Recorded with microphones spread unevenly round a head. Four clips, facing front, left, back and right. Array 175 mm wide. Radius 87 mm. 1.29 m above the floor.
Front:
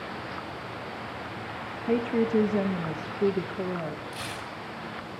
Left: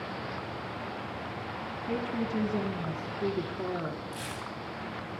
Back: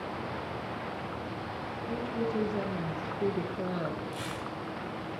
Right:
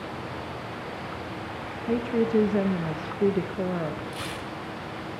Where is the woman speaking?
25° right, 0.9 m; by 4.0 s 90° right, 1.2 m.